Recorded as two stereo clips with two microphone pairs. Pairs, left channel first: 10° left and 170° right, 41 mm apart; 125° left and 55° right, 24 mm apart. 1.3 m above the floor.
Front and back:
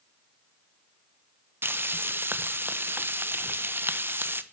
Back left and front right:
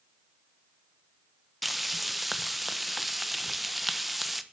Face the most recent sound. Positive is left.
turn(degrees=-140)